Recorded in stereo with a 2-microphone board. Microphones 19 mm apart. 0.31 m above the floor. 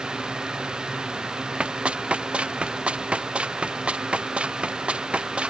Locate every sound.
1.6 s running footsteps: 85° right; by 5.5 s 90° right